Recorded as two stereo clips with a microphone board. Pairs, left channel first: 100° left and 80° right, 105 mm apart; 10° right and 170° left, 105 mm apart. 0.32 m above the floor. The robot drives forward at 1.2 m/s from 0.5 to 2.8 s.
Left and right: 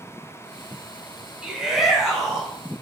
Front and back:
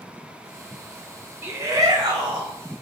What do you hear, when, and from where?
1.4 s a shout: 150° right, 1.3 m; by 2.5 s 170° right, 2 m